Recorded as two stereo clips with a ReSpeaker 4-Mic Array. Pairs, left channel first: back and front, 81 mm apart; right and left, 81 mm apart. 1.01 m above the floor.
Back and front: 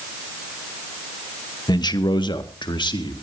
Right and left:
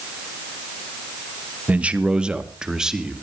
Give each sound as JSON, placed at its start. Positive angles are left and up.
{"t": 1.7, "sound": "a man speaking", "azimuth_deg": 160, "distance_m": 1.2}